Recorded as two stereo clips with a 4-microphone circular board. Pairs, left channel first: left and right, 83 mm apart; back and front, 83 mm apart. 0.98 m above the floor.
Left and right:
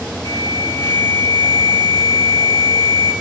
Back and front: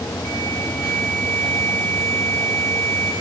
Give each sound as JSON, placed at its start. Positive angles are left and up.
{"t": 0.2, "sound": "an alarm", "azimuth_deg": 150, "distance_m": 8.0}